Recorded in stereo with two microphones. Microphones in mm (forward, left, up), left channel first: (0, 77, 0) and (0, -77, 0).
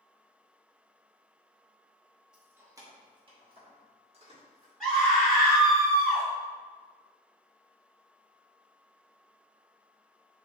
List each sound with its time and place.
2.3 s keys jangling: 5° right (ahead or behind), 0.6 m; by 4.7 s 40° right (ahead or behind), 1.3 m
4.8 s a scream: centre (ahead or behind), 1.5 m